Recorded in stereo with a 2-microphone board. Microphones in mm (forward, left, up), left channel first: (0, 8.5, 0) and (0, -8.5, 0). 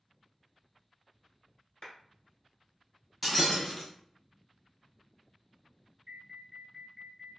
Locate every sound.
1.8 s a clap: 35° left (ahead or behind), 1.4 m
3.2 s breaking glass: centre (ahead or behind), 1.5 m
6.1 s an alarm: 15° right (ahead or behind), 1.6 m